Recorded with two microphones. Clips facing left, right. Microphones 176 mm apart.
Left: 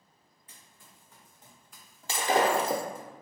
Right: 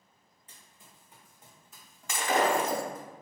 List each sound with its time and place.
0.5 s running footsteps: 25° right (ahead or behind), 1.8 m; by 3.1 s 35° left (ahead or behind), 1.2 m
2.1 s breaking glass: 30° left (ahead or behind), 0.7 m